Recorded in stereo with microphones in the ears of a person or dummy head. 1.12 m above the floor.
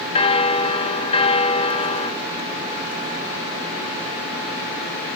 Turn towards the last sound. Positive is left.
turn(degrees=30)  # may be behind; listen again after turning